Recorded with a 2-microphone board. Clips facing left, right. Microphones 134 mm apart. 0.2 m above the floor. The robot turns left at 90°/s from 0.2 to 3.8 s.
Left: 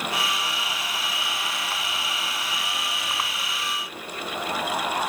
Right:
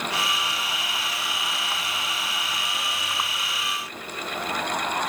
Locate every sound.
Only background noise.